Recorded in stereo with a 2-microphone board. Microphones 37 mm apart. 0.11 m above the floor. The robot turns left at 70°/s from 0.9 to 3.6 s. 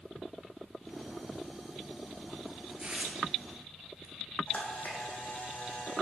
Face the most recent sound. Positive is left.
turn(degrees=50)  # may be behind; listen again after turning